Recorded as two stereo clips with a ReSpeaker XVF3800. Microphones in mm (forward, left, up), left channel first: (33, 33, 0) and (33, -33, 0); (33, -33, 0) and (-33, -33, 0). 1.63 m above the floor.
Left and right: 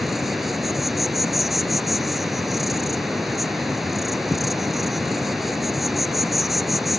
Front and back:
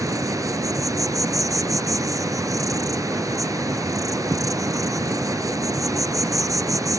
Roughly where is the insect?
Behind.